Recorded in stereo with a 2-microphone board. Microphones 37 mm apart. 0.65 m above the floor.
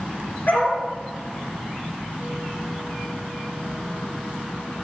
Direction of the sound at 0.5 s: 55° left (ahead or behind).